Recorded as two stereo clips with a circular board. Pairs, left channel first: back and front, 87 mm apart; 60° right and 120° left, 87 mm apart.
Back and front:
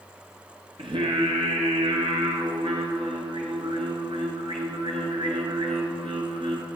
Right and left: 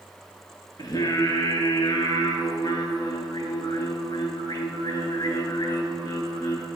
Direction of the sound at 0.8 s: 20° right.